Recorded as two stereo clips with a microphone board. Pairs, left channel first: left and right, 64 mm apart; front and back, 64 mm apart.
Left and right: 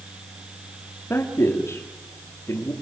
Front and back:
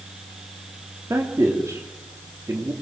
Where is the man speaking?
140° left, 3.5 m.